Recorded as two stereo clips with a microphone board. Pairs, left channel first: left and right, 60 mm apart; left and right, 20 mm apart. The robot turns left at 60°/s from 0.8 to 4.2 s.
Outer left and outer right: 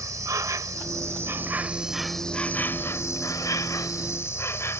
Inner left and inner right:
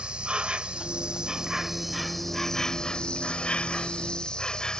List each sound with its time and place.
0.0 s an insect: 105° right; by 4.8 s 50° left